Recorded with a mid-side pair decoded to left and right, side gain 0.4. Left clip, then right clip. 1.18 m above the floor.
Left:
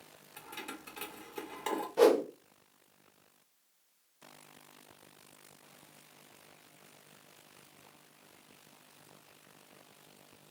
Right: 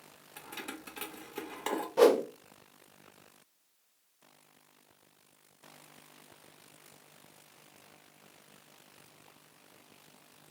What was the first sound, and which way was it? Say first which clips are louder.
Keys jangling: right 1 dB; 25° right.